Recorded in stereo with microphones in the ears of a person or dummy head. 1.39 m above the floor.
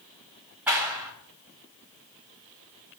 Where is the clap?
10° right (ahead or behind), 1.8 m.